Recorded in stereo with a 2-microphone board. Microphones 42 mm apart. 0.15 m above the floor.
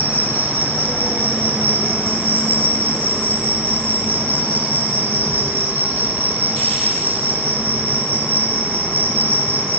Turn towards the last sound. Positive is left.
turn(degrees=-70)  # may be behind; listen again after turning